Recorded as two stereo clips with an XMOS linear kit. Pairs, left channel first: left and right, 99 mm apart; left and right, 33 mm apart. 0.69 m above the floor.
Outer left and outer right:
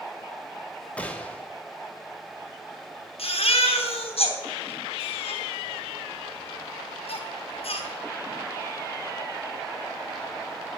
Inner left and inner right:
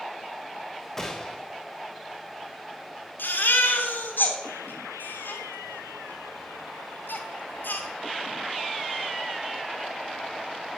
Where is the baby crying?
75° left (ahead or behind), 4 m.